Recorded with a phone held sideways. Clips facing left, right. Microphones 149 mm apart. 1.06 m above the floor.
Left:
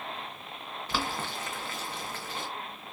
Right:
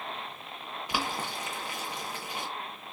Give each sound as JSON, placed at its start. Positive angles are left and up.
{"t": 0.9, "sound": "boiling", "side_deg": -15, "distance_m": 0.9}